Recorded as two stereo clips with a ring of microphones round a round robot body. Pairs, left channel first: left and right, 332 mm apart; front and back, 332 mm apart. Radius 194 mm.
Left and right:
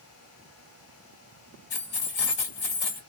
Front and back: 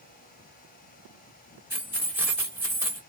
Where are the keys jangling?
95° left, 1.9 m.